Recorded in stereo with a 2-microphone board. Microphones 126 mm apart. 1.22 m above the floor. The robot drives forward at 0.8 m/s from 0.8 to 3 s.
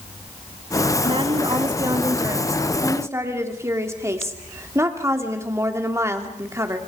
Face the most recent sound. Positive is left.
turn(degrees=-20)  # may be behind; listen again after turning